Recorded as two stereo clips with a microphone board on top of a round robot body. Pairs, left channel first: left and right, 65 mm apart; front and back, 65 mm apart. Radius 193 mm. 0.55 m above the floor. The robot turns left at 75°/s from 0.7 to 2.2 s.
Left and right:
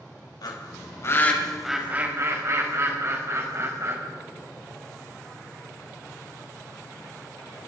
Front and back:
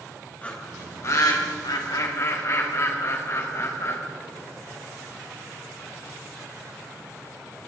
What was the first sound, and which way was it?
A bird, 70° left.